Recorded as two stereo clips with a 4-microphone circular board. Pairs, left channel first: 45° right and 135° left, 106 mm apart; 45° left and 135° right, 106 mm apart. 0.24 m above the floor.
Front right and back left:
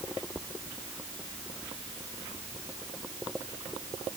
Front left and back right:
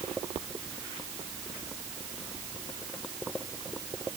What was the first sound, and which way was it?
Only background noise.